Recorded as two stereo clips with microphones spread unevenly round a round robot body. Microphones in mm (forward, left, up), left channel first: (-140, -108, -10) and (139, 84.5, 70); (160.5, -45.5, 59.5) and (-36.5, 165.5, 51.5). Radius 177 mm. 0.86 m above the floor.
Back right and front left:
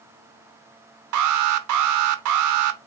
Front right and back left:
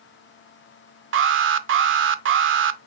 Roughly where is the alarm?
Left.